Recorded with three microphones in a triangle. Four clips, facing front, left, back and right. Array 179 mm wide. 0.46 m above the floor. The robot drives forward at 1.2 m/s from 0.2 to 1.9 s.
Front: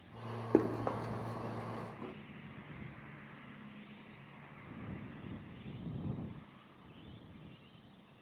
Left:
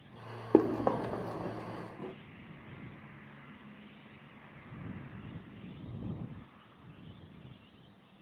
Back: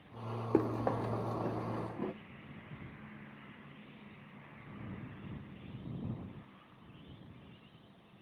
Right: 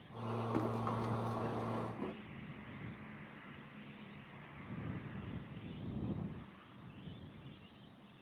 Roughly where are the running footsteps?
Left.